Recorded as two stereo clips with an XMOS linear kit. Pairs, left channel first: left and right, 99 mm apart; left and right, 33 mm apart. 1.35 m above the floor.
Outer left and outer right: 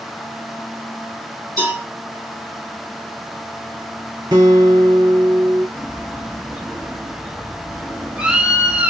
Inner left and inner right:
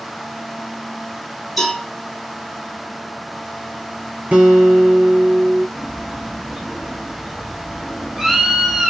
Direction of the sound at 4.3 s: 45° right (ahead or behind).